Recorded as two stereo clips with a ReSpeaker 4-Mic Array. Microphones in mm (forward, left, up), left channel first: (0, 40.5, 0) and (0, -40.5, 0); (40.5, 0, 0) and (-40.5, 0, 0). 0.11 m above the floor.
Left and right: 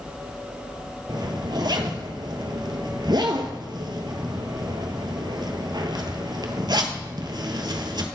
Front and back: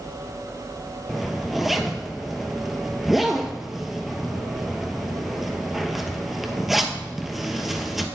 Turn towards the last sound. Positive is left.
turn(degrees=-95)